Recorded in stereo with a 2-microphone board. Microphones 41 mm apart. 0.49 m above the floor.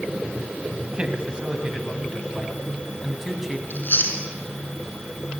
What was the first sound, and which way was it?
A man speaking, 25° right (ahead or behind).